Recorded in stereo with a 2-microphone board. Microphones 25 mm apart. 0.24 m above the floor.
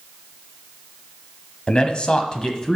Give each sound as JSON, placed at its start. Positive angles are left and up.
{"t": 1.7, "sound": "a man speaking", "side_deg": 35, "distance_m": 1.2}